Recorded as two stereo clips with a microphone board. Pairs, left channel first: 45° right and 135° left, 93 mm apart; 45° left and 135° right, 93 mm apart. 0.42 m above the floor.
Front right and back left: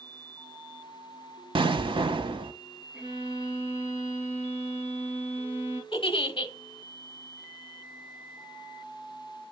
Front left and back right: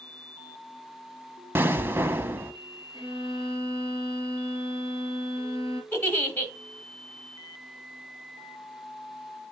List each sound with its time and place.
1.6 s an explosion: 160° left, 0.6 m
2.9 s a violin: 65° left, 5 m
5.9 s a giggle: 20° right, 1.0 m